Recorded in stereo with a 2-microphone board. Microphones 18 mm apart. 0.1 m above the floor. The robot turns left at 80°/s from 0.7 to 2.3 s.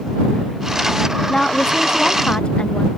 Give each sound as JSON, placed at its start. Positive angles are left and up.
{"t": 1.3, "sound": "a woman speaking", "azimuth_deg": 145}